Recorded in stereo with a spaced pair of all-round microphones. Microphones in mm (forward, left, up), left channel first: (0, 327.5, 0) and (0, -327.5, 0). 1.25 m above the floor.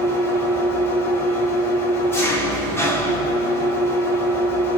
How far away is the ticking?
No ticking in this recording.